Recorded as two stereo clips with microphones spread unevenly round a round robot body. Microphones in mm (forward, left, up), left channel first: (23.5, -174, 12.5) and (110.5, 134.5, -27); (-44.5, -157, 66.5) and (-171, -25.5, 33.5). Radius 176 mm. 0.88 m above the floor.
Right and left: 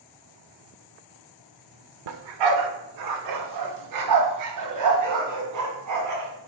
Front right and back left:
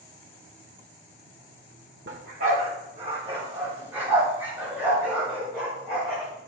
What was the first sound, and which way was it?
A dog barking, 75° left.